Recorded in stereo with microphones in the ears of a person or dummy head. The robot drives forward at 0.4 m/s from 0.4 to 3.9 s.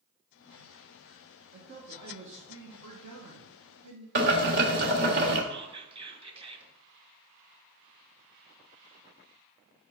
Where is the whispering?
25° right (ahead or behind), 1.4 m.